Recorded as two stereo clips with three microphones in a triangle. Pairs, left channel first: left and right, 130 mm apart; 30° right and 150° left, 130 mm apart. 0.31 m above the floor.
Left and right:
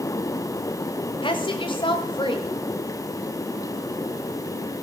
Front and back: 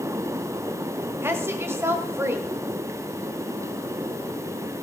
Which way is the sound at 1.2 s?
95° left.